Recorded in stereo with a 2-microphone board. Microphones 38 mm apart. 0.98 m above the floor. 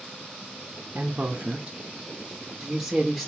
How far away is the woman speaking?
About 1.0 m.